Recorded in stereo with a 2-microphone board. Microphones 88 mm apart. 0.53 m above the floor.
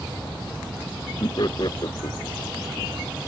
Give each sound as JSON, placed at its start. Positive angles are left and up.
{"t": 1.2, "sound": "laughter", "side_deg": 50}